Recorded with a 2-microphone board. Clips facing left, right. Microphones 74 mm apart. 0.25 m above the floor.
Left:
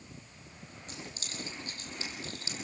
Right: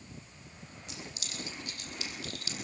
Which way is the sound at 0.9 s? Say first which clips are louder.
Left 1 dB; 40° left (ahead or behind).